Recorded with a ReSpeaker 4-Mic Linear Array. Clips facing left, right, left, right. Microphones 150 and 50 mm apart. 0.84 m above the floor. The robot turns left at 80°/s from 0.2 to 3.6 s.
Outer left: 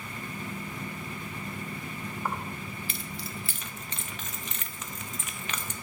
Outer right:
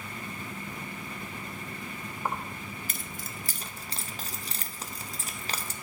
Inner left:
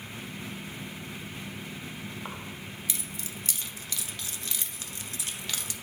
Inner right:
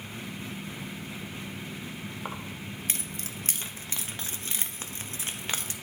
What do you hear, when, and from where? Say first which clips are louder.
2.2 s keys jangling: outer right 2 dB, inner right 2 dB; 15° right (ahead or behind), 0.5 m; by 5.7 s 35° right (ahead or behind), 0.5 m